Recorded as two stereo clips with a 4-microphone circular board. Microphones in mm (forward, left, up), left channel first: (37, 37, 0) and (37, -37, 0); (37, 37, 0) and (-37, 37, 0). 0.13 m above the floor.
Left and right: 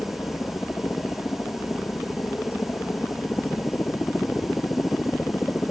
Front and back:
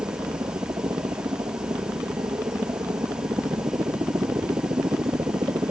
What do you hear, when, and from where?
0.0 s a helicopter: 150° left; by 5.7 s 155° left